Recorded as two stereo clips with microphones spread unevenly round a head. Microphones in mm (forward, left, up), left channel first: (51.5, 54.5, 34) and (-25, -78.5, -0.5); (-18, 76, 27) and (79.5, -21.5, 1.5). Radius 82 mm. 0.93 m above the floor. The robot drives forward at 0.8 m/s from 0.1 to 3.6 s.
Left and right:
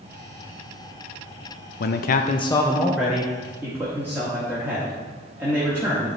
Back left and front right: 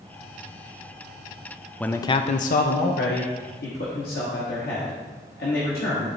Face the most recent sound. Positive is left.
turn(degrees=165)